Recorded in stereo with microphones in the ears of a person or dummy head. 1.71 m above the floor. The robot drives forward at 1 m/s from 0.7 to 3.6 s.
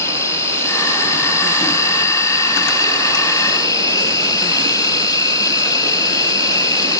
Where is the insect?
15° left (ahead or behind); by 7.0 s 20° left (ahead or behind).